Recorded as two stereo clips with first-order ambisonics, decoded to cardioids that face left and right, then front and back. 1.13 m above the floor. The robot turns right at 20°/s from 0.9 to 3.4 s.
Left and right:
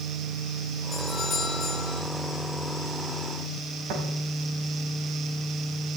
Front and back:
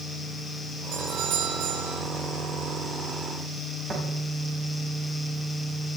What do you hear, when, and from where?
0.9 s a doorbell: 155° left, 8 m; by 2.0 s 175° left, 8 m
3.9 s tapping: 110° right, 6 m